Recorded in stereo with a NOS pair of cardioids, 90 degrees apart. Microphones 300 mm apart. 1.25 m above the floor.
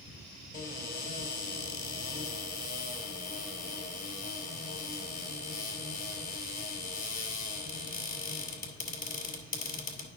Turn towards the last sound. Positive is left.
turn(degrees=30)